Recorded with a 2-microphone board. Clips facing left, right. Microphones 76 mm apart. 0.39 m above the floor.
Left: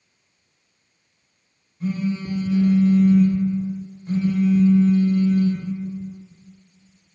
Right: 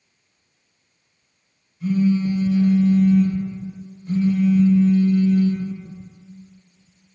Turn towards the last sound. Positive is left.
turn(degrees=35)  # may be behind; listen again after turning